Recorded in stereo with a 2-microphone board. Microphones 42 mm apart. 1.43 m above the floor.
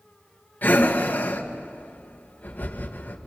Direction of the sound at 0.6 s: 45° left (ahead or behind).